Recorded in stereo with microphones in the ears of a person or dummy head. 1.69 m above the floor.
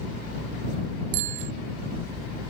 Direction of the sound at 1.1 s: 85° right.